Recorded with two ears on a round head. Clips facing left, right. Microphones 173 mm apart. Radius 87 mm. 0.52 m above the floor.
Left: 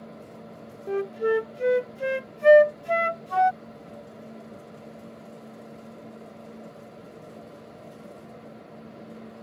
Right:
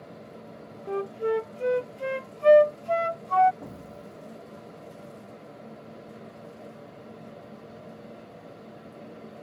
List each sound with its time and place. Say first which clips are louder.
0.9 s a flute: left 3 dB; 15° left (ahead or behind)
3.6 s an explosion: right 1 dB; 80° right